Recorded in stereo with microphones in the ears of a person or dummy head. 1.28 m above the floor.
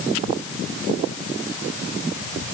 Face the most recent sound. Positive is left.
No sound to turn to.